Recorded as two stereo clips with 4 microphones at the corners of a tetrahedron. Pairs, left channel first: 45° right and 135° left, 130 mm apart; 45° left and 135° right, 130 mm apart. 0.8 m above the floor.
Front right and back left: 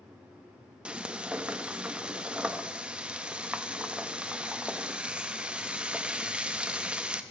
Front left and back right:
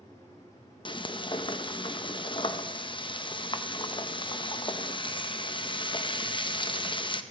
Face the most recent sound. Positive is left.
turn(degrees=60)